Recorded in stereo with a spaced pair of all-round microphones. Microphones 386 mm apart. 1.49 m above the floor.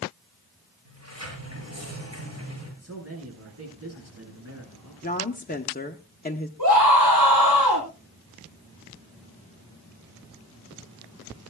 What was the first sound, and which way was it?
A sliding door, 40° right (ahead or behind).